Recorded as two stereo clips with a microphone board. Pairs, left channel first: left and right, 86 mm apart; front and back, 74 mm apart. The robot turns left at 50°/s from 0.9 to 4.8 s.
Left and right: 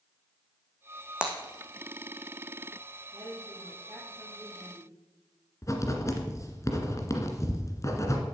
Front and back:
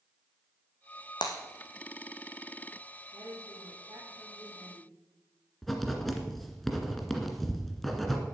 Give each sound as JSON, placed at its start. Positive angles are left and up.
{"t": 1.2, "sound": "breaking glass", "azimuth_deg": -10, "distance_m": 2.5}
{"t": 3.1, "sound": "a woman speaking", "azimuth_deg": -125, "distance_m": 5.0}
{"t": 5.6, "sound": "writing", "azimuth_deg": 85, "distance_m": 2.0}